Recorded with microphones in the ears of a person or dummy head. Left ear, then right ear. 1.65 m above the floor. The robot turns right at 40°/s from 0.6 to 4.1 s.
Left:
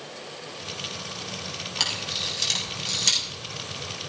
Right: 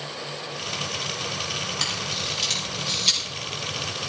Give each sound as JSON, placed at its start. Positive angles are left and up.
{"t": 1.8, "sound": "a camera shutter", "side_deg": 65, "distance_m": 7.0}